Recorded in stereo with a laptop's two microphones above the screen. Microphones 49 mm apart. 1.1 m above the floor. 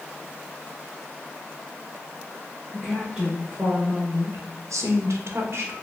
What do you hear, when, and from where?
2.7 s a woman speaking: 10° right (ahead or behind), 1.1 m; by 5.7 s 50° right (ahead or behind), 1.1 m